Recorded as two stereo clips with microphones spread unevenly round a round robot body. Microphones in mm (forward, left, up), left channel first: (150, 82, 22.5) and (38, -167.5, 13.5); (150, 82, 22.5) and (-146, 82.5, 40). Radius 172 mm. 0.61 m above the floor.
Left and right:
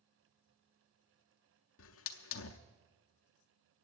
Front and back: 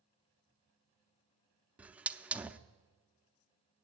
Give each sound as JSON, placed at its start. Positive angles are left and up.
{"t": 1.8, "sound": "a hiss", "azimuth_deg": 95, "distance_m": 0.6}